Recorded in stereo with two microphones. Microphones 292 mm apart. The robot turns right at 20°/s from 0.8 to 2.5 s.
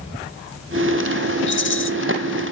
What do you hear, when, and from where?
1.5 s a rattle: 40° left (ahead or behind), 0.6 m; by 1.9 s 45° left (ahead or behind), 0.6 m